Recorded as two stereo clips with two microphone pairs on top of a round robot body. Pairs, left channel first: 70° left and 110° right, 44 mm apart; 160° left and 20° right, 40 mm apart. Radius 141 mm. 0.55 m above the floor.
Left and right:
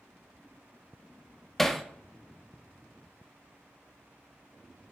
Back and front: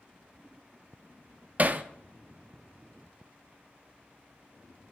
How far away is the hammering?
About 0.7 m.